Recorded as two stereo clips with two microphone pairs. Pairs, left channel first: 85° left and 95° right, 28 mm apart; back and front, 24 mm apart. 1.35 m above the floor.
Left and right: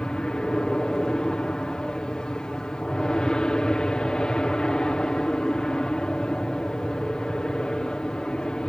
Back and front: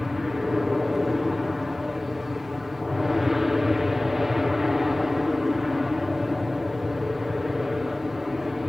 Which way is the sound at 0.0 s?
70° left.